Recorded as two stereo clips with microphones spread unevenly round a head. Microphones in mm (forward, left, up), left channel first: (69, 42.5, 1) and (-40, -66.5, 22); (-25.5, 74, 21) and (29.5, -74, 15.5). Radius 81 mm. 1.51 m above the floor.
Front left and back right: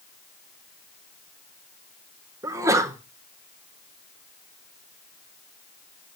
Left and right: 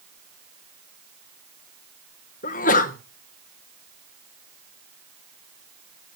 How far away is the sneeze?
About 1.3 m.